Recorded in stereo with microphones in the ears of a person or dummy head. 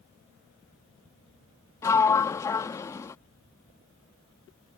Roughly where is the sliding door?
Centre.